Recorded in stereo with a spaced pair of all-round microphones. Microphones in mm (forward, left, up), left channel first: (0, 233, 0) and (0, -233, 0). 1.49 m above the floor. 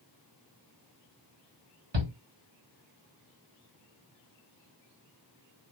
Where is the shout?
65° right (ahead or behind), 1.3 m.